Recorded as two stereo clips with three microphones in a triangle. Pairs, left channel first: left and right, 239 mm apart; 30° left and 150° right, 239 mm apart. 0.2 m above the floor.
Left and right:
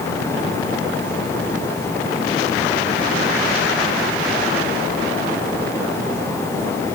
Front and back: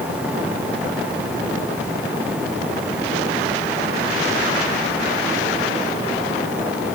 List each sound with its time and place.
Only background noise.